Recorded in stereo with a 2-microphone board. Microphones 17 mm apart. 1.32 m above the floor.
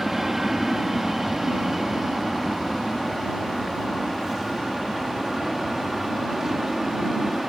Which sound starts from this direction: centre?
An aircraft, at 0.0 s.